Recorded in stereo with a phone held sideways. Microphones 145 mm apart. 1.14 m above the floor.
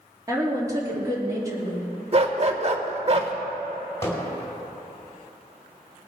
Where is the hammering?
20° left (ahead or behind), 4 m.